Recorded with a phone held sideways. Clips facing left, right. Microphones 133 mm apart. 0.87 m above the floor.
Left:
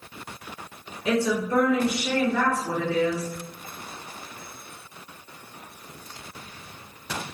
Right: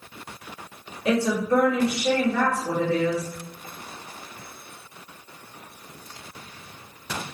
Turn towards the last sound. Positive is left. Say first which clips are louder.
# right 2 dB
turn(degrees=-60)  # may be behind; listen again after turning